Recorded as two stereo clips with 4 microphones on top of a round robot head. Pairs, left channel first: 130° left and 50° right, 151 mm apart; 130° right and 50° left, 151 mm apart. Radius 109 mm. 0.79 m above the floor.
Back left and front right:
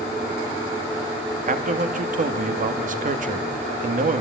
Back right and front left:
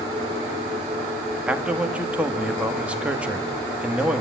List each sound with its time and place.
1.5 s a man speaking: 35° right, 1.9 m